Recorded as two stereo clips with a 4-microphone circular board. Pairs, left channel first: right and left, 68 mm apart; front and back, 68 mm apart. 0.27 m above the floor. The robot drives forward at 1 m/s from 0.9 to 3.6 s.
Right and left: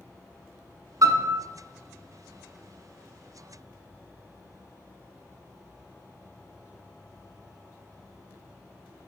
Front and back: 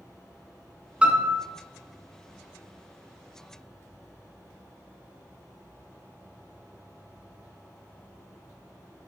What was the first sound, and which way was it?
A piano, 105° left.